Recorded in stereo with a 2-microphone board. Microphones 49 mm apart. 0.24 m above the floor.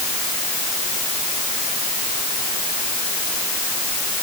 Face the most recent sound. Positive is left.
No sound to turn to.